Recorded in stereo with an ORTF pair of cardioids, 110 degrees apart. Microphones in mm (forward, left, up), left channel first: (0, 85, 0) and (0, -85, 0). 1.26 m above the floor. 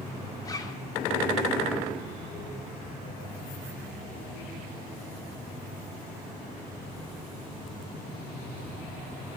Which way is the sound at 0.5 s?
25° left.